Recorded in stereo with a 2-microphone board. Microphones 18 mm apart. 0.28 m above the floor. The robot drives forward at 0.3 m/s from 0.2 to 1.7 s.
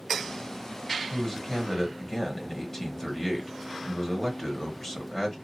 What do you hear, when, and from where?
1.1 s a man speaking: 20° left (ahead or behind), 1.4 m